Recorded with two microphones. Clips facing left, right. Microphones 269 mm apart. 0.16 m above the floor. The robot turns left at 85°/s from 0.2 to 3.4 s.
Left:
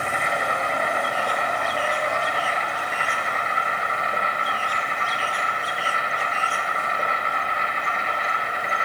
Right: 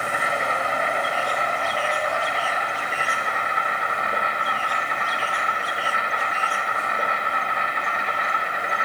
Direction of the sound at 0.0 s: 170° right.